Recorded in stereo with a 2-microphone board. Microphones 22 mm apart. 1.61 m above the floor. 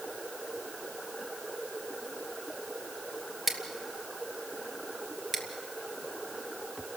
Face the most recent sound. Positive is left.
turn(degrees=-15)  # may be behind; listen again after turning